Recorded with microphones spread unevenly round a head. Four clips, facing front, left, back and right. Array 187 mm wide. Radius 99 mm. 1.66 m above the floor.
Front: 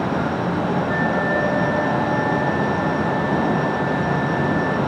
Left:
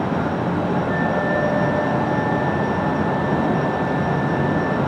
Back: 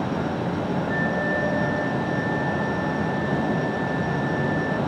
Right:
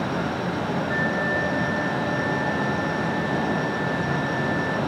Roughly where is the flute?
Behind.